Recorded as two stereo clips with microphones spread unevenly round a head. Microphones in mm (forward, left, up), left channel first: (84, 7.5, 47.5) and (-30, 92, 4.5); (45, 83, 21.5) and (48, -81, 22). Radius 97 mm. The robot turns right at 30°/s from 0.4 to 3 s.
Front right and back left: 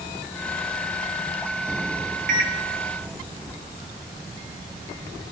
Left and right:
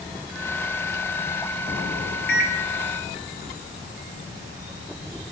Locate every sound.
2.3 s a microwave: 130° left, 0.8 m; by 2.6 s 135° left, 0.8 m